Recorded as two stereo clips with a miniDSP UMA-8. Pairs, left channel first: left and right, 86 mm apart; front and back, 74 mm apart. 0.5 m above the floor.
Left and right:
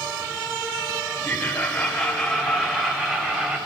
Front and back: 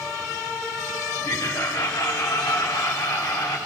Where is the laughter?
25° left, 2.5 m; by 3.6 s 15° right, 2.5 m.